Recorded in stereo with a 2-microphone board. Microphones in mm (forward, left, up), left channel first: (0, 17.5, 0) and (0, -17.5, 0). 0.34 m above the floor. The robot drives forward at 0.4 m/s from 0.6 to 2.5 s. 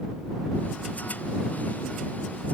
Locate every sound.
Only background noise.